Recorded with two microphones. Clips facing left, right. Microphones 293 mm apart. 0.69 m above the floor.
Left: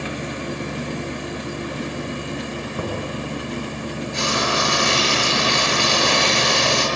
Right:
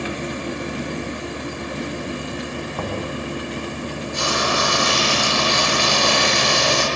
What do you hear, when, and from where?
2.8 s knocking: 25° left (ahead or behind), 5 m
4.1 s frying: 75° left (ahead or behind), 8 m